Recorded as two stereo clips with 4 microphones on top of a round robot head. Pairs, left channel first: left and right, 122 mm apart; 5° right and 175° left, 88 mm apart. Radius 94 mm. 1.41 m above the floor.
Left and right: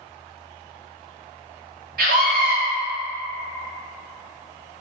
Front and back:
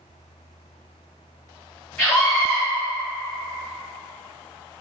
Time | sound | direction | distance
2.0 | a scream | 70° right | 1.4 m